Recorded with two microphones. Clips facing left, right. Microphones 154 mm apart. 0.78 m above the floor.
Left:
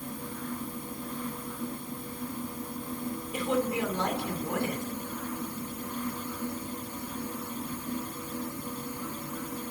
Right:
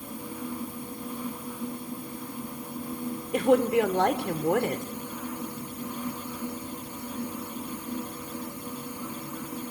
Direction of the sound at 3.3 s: 65° right (ahead or behind).